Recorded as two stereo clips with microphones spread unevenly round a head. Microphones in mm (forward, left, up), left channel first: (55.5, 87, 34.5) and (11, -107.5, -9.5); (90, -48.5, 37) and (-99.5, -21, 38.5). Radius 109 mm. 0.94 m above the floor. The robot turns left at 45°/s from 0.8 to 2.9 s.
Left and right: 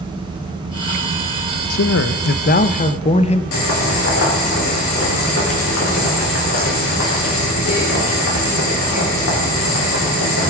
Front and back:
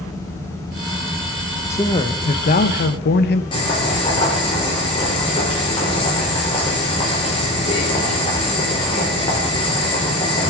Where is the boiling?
60° left, 3.5 m.